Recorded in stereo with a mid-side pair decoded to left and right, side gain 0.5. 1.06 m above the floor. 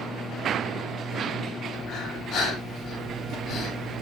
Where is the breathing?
70° left, 3.5 m.